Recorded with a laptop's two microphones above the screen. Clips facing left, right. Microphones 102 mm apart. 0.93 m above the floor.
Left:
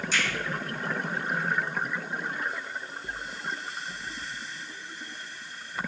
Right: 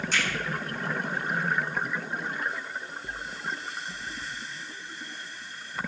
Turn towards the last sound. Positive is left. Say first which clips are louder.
# even
turn(degrees=-50)  # may be behind; listen again after turning